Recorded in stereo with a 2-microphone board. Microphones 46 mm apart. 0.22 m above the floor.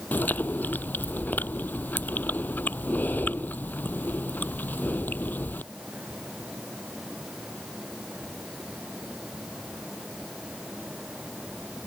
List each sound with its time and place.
0.1 s chewing: 40° left (ahead or behind)